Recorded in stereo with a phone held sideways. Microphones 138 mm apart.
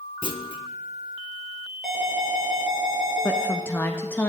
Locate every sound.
0.2 s a clunk: 35° left (ahead or behind), 0.6 m
1.8 s an alarm: centre (ahead or behind), 4 m
3.2 s a woman speaking: 15° left (ahead or behind), 0.6 m